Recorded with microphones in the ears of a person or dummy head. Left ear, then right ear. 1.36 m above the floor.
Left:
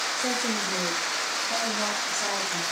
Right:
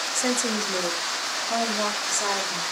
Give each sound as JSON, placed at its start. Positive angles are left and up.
{"t": 0.1, "sound": "a woman speaking", "side_deg": -80, "distance_m": 2.5}